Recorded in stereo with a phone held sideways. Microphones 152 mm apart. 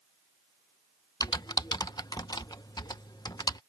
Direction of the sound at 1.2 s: 25° left (ahead or behind).